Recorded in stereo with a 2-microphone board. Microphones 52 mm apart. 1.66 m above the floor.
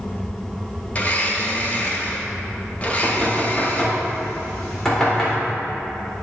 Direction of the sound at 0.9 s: 30° left (ahead or behind).